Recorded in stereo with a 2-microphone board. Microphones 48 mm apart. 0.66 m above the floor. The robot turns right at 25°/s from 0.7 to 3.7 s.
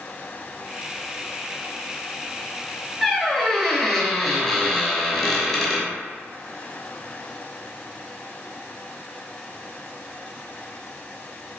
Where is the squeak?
10° left (ahead or behind), 0.6 m; by 5.9 s 5° left (ahead or behind), 0.6 m.